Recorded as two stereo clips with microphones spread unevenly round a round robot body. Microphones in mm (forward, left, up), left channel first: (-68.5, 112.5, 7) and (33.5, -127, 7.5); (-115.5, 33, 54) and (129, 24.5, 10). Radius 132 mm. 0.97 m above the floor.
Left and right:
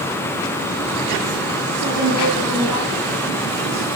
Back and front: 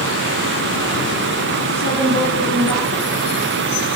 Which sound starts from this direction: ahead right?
A woman speaking, at 1.7 s.